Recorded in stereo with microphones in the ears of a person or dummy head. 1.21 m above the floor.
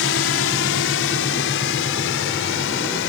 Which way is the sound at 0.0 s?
60° left (ahead or behind).